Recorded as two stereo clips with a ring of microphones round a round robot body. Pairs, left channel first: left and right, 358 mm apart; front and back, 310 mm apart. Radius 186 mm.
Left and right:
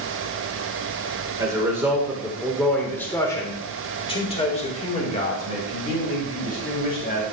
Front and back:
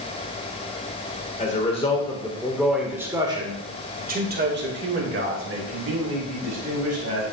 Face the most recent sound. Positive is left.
turn(degrees=155)